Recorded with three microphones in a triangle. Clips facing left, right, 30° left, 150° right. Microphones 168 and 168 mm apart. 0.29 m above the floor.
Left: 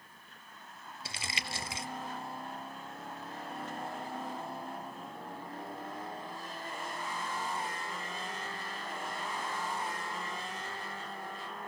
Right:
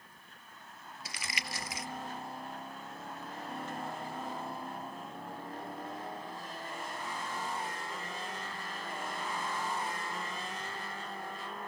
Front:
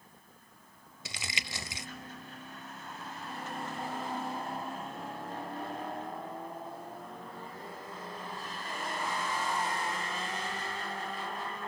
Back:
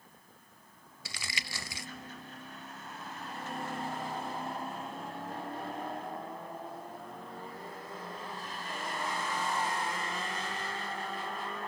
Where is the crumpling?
70° left, 0.6 m.